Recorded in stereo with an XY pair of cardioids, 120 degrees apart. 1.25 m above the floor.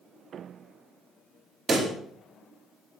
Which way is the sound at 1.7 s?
25° right.